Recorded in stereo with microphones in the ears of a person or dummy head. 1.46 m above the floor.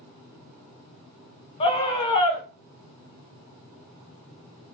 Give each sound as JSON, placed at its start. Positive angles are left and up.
{"t": 1.6, "sound": "a scream", "side_deg": 35, "distance_m": 0.8}